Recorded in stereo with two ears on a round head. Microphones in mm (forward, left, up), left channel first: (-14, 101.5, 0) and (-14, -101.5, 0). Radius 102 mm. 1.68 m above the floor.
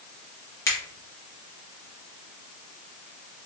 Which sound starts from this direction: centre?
A finger snap, at 0.7 s.